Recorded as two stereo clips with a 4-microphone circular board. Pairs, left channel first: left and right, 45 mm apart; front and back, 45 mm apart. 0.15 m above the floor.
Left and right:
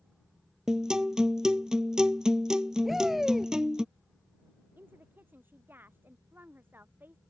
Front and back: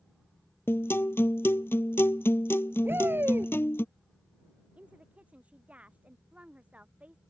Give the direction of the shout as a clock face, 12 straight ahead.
6 o'clock.